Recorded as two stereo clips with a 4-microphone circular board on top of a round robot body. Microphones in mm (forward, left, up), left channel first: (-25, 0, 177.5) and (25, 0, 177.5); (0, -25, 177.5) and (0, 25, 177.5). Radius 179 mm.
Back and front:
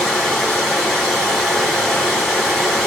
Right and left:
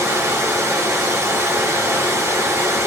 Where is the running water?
100° left, 1.9 m.